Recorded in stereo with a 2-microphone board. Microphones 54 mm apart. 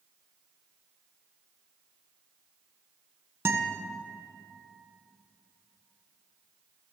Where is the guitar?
50° right (ahead or behind), 0.9 m.